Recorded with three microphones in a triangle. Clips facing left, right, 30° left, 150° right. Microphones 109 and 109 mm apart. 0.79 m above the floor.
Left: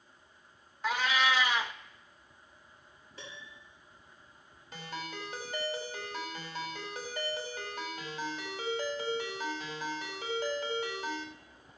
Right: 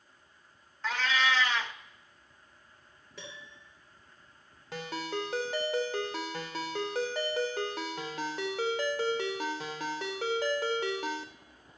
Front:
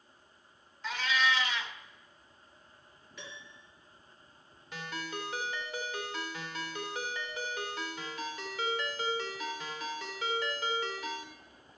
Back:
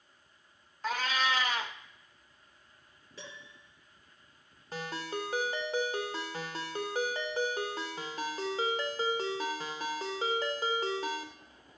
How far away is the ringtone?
About 1.3 m.